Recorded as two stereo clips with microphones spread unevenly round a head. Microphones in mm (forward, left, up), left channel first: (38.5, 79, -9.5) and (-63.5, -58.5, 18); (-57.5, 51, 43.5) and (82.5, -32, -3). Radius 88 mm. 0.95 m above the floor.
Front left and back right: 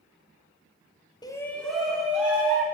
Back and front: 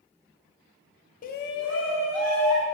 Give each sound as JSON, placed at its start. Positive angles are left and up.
{"t": 1.2, "sound": "a shout", "azimuth_deg": 105, "distance_m": 0.5}